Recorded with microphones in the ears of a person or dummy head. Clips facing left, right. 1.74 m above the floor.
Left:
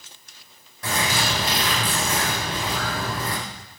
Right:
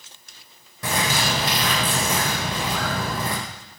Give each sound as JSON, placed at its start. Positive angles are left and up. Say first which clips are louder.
{"t": 0.8, "sound": "a bird", "louder": "right 1 dB", "side_deg": -65, "distance_m": 3.5}